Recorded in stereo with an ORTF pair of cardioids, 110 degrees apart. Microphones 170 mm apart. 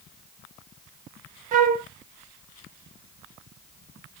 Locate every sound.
1.5 s a flute: 50° right, 1.1 m